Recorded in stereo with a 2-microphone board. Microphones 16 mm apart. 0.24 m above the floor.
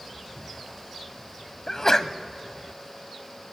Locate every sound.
1.7 s a sneeze: 30° left (ahead or behind), 1.0 m